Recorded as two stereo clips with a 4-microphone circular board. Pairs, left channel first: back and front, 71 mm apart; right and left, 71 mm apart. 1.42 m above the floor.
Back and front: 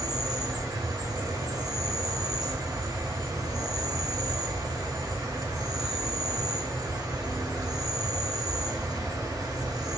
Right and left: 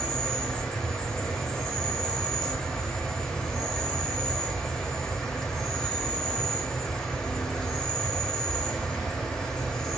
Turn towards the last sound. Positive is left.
turn(degrees=-10)